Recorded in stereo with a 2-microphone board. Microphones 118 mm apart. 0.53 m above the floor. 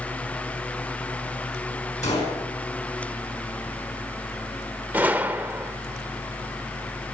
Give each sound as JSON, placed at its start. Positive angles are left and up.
{"t": 2.0, "sound": "a gunshot", "side_deg": 75, "distance_m": 4.5}
{"t": 4.9, "sound": "a gunshot", "side_deg": -15, "distance_m": 0.6}